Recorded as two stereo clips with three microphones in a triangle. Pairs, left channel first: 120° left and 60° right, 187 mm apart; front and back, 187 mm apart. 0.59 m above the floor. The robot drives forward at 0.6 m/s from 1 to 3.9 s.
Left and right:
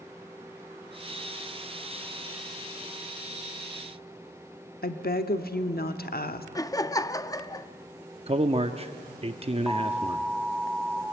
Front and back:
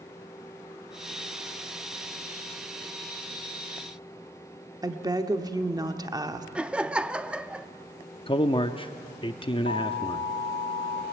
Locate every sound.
4.8 s a woman speaking: 115° left, 1.0 m
6.5 s laughter: 110° left, 0.5 m
8.3 s a man speaking: 40° right, 0.7 m
9.7 s an alarm: 30° left, 1.4 m